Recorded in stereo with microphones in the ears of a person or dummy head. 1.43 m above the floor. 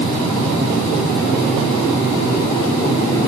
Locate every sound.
Only background noise.